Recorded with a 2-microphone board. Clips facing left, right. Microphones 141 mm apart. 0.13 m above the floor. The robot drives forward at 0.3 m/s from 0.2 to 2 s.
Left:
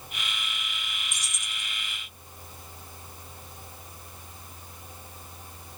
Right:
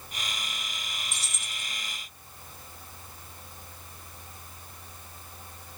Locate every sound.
1.1 s keys jangling: 15° left (ahead or behind), 0.7 m